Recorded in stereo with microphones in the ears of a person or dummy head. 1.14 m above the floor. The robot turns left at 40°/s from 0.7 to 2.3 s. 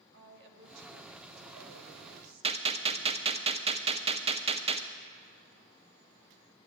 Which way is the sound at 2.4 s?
30° right (ahead or behind).